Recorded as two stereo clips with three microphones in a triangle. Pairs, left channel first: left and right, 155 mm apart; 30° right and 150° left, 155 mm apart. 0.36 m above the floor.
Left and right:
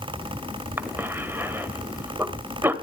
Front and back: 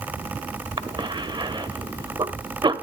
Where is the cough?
160° right, 1.3 m.